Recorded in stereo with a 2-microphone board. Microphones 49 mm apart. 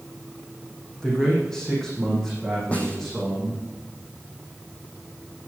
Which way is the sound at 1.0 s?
15° left (ahead or behind).